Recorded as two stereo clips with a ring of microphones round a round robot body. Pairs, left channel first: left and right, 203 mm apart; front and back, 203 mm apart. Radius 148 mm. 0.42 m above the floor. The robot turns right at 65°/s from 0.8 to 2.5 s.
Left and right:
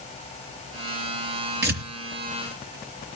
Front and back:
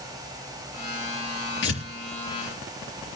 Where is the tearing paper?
55° right, 3 m; by 1.8 s 40° right, 3 m.